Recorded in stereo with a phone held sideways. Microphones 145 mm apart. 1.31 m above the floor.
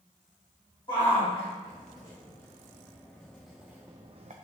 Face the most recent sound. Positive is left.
turn(degrees=-55)  # may be behind; listen again after turning